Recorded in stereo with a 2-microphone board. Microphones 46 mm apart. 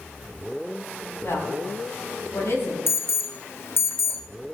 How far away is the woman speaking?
About 5 m.